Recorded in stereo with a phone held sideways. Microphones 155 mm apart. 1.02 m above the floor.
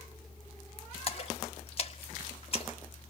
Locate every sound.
1.1 s a splash: 40° left (ahead or behind), 1.6 m